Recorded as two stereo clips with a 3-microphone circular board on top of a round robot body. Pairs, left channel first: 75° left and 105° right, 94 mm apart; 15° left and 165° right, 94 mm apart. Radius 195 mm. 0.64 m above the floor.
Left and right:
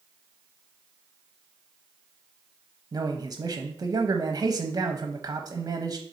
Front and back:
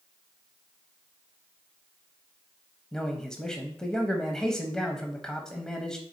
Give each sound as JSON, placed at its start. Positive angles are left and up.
{"t": 2.9, "sound": "a man speaking", "azimuth_deg": -65, "distance_m": 0.8}